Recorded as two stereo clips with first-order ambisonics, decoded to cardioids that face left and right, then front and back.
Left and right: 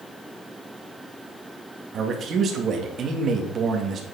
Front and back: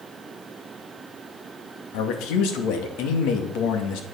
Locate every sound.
1.9 s a man speaking: 30° right, 2.5 m